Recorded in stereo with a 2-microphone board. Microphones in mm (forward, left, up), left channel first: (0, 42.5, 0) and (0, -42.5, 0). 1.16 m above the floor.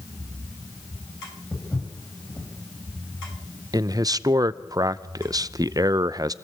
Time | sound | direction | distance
1.5 | footsteps | 25° left (ahead or behind) | 9.5 m
3.7 | a man speaking | 50° right (ahead or behind) | 0.6 m